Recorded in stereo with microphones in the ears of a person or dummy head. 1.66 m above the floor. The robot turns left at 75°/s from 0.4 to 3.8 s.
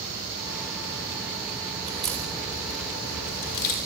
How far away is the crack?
About 4.5 m.